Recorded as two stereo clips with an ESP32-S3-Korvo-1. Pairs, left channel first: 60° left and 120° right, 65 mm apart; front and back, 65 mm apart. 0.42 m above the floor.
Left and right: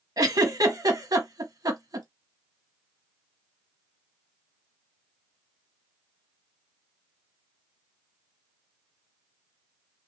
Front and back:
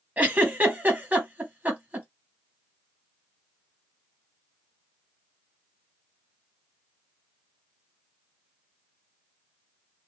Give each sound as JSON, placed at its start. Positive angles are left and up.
{"t": 0.2, "sound": "a giggle", "azimuth_deg": -115, "distance_m": 1.2}